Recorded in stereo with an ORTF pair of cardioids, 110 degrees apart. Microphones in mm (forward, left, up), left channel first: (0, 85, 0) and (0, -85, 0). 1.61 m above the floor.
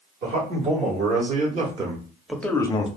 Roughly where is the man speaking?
Right.